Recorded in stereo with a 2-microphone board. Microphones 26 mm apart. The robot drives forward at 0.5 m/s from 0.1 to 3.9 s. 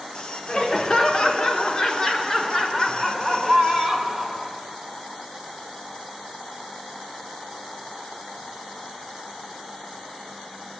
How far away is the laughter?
About 0.8 m.